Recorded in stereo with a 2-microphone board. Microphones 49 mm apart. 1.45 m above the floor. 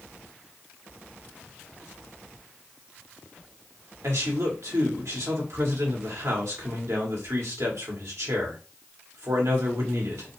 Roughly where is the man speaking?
Right.